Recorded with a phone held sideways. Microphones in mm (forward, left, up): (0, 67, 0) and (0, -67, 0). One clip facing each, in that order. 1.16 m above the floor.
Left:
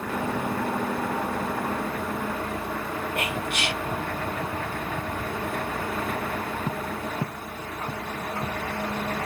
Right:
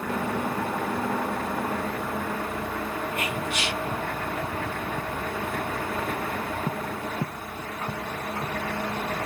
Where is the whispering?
60° left (ahead or behind), 1.4 m.